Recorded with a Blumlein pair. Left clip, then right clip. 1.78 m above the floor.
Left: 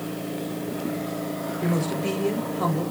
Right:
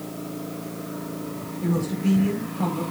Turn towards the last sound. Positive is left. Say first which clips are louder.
# right 1 dB
turn(degrees=35)